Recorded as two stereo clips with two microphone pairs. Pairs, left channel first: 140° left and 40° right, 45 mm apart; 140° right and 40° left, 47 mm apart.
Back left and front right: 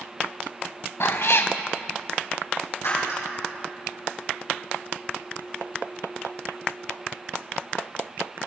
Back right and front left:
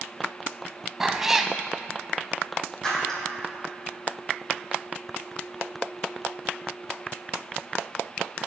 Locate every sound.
1.0 s a cat meowing: 115° left, 0.8 m
2.8 s breaking glass: 140° left, 5 m